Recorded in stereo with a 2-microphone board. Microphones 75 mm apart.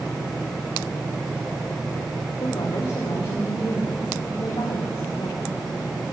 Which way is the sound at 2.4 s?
70° left (ahead or behind).